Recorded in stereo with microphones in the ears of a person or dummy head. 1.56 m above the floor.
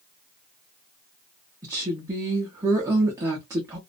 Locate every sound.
1.6 s a woman speaking: 15° right (ahead or behind), 0.6 m